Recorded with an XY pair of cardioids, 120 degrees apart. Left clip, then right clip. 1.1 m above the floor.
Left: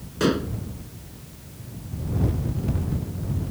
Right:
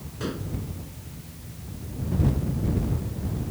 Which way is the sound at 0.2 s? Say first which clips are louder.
Left 10 dB; 55° left.